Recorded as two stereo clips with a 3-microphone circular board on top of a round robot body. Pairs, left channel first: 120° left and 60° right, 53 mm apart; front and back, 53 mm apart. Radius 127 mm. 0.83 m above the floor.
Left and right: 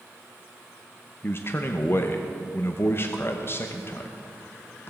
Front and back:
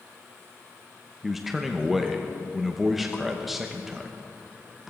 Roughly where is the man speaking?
Left.